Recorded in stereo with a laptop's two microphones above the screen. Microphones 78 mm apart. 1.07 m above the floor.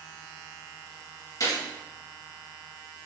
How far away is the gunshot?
About 1.3 m.